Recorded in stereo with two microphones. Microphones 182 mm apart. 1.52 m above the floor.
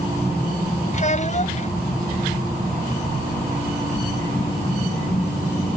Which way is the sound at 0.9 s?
45° left (ahead or behind).